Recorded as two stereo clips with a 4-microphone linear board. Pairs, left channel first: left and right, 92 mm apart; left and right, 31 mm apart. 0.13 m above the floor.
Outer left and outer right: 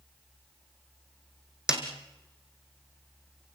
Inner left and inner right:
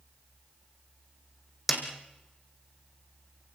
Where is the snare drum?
10° right (ahead or behind), 3.5 m.